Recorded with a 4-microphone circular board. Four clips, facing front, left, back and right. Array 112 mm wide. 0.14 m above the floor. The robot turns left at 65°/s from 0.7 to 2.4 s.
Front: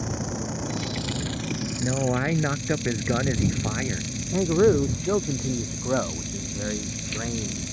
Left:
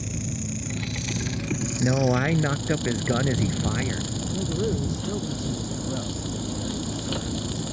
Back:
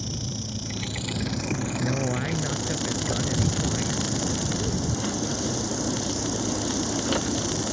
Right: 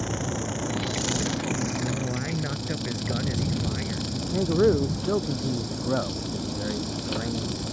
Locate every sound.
0.0 s an insect: 60° right; by 7.7 s 170° right
1.8 s a man speaking: 85° left; by 4.1 s 45° left
4.3 s a man speaking: 30° right